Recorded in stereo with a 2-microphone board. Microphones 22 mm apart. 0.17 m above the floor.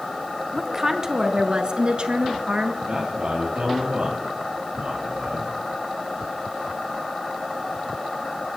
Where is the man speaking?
65° right (ahead or behind), 4 m.